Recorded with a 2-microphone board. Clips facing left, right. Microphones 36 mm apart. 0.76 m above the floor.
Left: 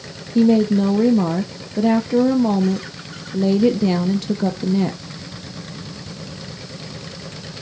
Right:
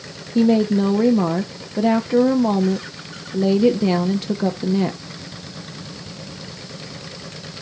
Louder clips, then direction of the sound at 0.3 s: Left 1 dB; 5° right (ahead or behind).